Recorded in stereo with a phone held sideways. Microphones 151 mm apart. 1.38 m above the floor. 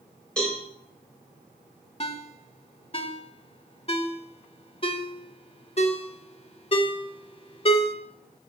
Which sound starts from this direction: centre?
A cowbell, at 0.4 s.